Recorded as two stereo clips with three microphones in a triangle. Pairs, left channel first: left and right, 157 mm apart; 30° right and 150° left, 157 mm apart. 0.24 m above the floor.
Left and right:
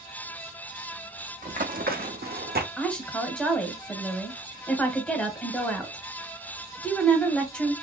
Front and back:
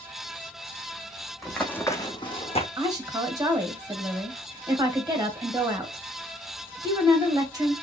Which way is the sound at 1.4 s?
120° right.